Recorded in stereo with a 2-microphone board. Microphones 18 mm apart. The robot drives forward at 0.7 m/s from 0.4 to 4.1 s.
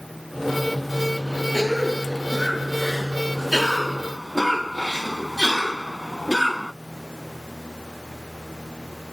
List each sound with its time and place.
1.5 s a cough: 5° right (ahead or behind)